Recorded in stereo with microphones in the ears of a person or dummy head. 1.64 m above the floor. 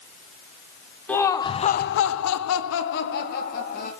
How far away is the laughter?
About 1.2 m.